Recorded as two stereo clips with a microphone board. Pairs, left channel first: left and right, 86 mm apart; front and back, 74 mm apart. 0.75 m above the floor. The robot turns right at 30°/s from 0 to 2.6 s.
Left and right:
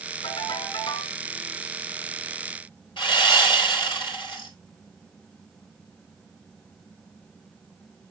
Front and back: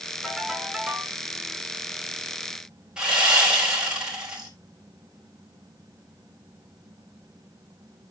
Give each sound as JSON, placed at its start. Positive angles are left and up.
{"t": 0.2, "sound": "a ringtone", "azimuth_deg": 85, "distance_m": 2.5}
{"t": 3.0, "sound": "sawing", "azimuth_deg": 100, "distance_m": 4.0}